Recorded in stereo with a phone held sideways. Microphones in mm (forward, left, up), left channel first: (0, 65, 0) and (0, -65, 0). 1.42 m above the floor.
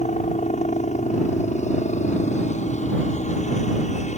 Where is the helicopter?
70° left (ahead or behind).